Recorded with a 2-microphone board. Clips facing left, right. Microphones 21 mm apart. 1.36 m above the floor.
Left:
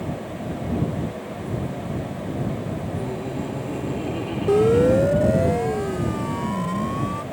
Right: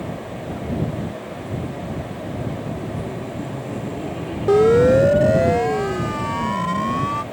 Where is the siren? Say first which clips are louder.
Right 4 dB; 25° right (ahead or behind).